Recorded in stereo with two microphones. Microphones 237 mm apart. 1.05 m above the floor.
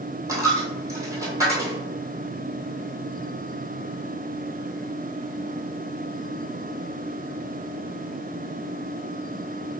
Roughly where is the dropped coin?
Centre.